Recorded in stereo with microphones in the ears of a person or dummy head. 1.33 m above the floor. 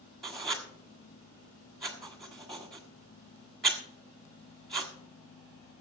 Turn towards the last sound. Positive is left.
turn(degrees=-5)  # may be behind; listen again after turning